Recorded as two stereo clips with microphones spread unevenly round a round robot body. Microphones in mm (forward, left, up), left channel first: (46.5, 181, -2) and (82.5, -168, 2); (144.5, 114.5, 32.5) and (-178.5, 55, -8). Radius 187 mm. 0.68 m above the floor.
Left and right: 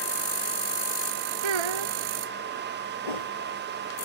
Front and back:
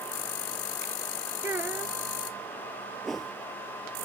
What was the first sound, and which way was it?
A child speaking, 85° right.